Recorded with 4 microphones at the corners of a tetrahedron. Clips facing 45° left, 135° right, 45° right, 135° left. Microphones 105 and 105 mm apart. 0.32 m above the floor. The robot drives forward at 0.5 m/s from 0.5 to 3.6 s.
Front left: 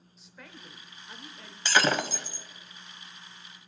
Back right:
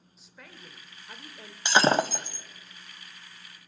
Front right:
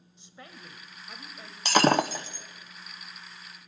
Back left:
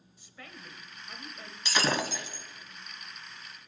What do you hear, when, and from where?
0.2 s a woman speaking: 45° right, 0.9 m; by 1.6 s 135° right, 0.9 m
1.6 s breaking glass: 65° right, 0.5 m; by 2.5 s 110° right, 0.5 m